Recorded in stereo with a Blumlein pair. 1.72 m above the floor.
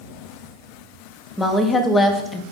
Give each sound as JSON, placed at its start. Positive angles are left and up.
{"t": 1.4, "sound": "a woman speaking", "azimuth_deg": 10, "distance_m": 0.6}